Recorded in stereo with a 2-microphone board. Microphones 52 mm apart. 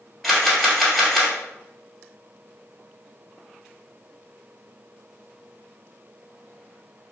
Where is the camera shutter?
5° left (ahead or behind), 1.1 m.